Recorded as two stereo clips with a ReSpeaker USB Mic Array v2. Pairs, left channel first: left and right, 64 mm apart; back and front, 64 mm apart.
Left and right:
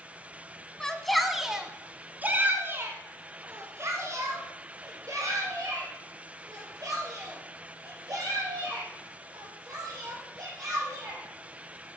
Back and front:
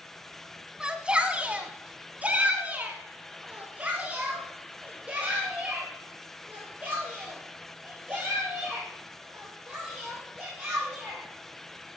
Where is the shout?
35° left, 1.0 m; by 11.2 s 70° right, 5.5 m.